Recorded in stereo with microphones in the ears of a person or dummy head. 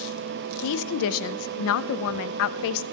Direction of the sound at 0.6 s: 75° left (ahead or behind).